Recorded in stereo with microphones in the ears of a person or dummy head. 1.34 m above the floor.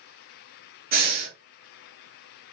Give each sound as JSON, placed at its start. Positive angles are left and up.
{"t": 0.9, "sound": "breathing", "side_deg": -50, "distance_m": 1.1}